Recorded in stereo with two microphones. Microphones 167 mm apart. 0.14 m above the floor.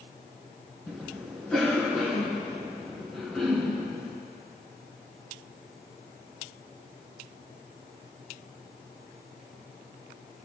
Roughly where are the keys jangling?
I don't hear keys jangling.